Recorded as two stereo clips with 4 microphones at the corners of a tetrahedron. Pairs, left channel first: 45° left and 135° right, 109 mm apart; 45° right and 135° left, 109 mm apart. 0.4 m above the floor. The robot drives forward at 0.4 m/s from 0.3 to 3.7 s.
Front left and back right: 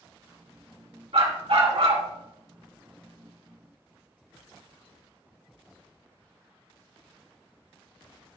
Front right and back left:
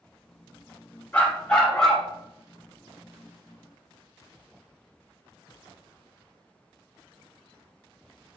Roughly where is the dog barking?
Behind right.